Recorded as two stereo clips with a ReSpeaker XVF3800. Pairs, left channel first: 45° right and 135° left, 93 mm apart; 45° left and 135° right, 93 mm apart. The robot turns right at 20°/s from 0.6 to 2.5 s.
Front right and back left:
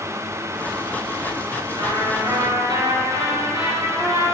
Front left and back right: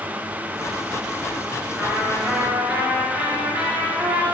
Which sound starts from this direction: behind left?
A trumpet, at 1.8 s.